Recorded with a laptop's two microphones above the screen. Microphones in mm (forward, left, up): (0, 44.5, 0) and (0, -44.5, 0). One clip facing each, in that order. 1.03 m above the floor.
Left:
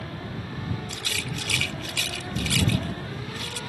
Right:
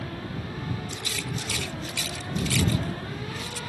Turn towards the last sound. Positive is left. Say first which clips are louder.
# even
turn(degrees=80)